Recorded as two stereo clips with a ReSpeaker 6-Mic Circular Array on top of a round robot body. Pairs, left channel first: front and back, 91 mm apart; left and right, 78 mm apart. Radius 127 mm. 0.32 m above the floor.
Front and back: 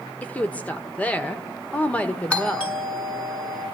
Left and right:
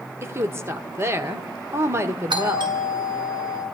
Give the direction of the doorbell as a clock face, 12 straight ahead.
3 o'clock.